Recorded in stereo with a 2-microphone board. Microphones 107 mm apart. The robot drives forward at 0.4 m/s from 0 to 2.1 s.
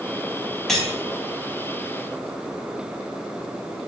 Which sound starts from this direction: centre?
Cutlery clinking, at 0.7 s.